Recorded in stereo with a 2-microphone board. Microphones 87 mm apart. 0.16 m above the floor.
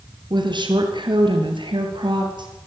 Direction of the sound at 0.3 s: 55° right (ahead or behind).